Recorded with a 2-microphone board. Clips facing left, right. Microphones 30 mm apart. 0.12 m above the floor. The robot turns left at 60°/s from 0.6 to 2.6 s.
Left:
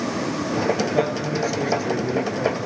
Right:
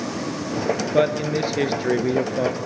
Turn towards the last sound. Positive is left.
turn(degrees=-135)